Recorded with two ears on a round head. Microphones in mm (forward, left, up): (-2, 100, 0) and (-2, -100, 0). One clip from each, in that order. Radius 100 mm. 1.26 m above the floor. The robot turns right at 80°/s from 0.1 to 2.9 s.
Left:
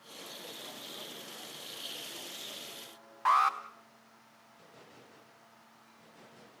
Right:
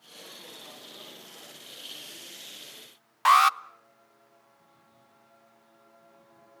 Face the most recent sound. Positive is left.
turn(degrees=-70)  # may be behind; listen again after turning